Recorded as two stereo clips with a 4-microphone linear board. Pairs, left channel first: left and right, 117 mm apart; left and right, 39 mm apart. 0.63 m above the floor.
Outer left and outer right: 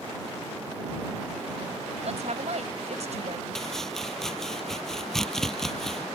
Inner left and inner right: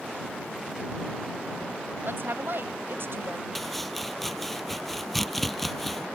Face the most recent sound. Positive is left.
turn(degrees=5)  # may be behind; listen again after turning